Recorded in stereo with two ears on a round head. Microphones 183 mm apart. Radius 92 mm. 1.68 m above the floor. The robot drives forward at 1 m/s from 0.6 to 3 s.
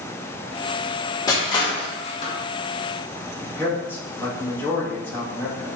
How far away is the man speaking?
About 2.5 m.